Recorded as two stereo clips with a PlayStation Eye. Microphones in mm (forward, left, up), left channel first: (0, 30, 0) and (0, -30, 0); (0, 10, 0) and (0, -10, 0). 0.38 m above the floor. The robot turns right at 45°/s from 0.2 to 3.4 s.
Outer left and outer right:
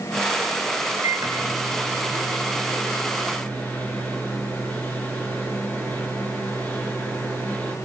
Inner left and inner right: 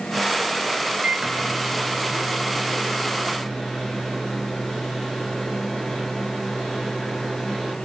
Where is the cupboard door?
I don't hear a cupboard door.